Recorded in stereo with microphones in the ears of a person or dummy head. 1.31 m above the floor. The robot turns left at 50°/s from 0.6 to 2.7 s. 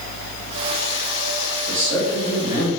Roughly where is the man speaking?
Behind.